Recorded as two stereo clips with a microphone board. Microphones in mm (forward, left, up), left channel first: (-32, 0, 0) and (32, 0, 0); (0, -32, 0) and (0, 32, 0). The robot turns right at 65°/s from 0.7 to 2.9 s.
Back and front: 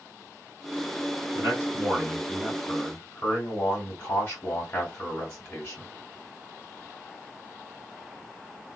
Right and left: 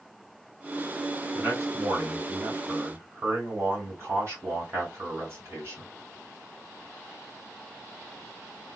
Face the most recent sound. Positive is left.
turn(degrees=140)